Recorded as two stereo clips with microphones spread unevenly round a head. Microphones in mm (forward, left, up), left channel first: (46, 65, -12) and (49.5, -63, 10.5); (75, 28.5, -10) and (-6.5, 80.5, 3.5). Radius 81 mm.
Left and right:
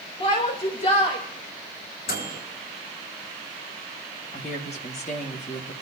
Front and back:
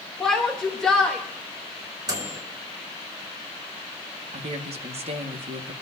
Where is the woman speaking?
145° left, 1.9 m.